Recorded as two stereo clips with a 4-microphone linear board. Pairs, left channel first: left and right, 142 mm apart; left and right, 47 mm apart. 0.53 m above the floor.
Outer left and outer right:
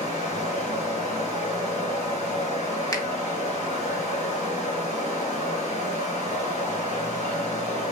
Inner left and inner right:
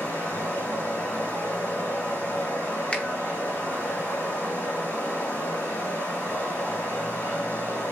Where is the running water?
60° left (ahead or behind), 2.5 m.